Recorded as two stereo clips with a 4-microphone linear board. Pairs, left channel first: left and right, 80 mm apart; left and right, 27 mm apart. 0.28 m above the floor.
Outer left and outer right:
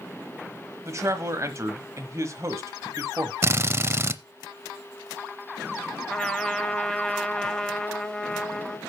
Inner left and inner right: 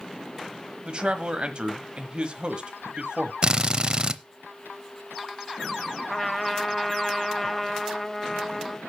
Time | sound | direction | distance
0.8 | a man speaking | 40° right (ahead or behind) | 1.3 m
3.4 | a drill | 30° right (ahead or behind) | 0.6 m
6.1 | a trumpet | 10° left (ahead or behind) | 0.9 m